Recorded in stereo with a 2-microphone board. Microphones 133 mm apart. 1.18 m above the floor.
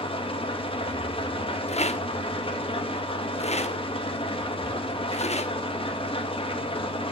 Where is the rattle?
55° left (ahead or behind), 1.0 m.